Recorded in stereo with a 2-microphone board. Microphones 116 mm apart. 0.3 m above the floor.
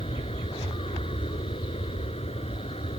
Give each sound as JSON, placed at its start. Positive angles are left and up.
{"t": 0.0, "sound": "an aircraft", "side_deg": 60}